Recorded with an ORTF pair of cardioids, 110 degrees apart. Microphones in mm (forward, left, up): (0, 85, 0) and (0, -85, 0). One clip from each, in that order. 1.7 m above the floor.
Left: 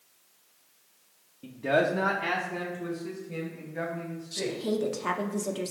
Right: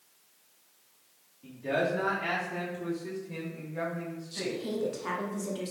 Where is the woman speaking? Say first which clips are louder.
Left 4 dB; 20° left, 0.7 m.